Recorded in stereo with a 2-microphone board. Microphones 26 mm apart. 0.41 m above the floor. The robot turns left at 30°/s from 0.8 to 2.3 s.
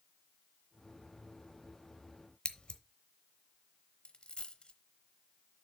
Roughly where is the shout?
No shout in this recording.